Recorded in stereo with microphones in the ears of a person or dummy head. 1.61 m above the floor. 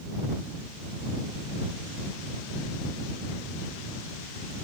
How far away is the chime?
No chime in this recording.